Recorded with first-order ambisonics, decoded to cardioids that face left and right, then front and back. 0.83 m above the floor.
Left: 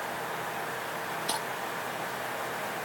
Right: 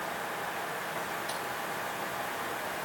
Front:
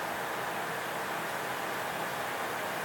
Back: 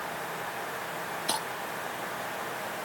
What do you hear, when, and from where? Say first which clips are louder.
1.3 s breaking glass: left 3 dB, back 4 dB; 155° left